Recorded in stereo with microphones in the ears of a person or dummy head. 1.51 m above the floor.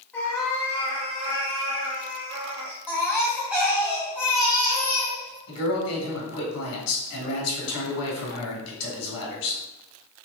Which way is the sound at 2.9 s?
5° right (ahead or behind).